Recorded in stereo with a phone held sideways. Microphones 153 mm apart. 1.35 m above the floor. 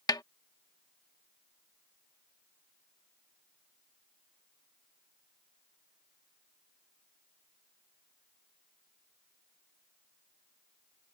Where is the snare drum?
25° left (ahead or behind).